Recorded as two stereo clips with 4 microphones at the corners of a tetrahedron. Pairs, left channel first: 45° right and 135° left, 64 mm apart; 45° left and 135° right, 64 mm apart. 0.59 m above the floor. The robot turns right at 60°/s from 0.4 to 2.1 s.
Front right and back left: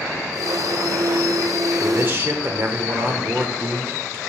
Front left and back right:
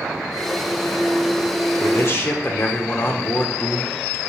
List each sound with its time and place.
1.8 s a man speaking: 70° left, 1.3 m; by 4.2 s 85° left, 1.3 m